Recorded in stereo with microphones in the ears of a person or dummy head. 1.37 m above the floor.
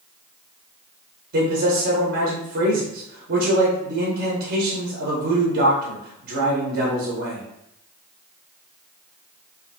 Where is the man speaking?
50° right (ahead or behind), 0.8 m.